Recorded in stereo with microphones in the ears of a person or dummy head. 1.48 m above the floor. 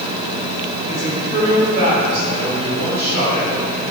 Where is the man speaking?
60° right (ahead or behind), 5 m; by 3.9 s 65° right (ahead or behind), 7 m.